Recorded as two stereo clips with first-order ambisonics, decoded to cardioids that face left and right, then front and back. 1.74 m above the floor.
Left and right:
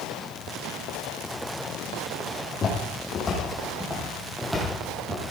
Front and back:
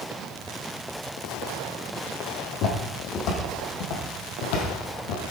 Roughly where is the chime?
I don't hear a chime.